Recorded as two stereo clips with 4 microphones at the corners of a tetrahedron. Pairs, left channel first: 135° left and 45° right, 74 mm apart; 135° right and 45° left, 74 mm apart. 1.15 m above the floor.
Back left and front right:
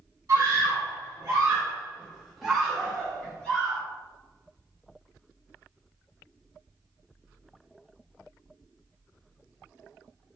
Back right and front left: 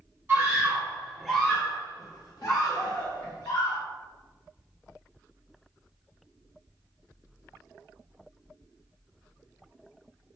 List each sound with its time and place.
0.3 s a scream: 10° right, 0.9 m; by 3.8 s 150° right, 1.5 m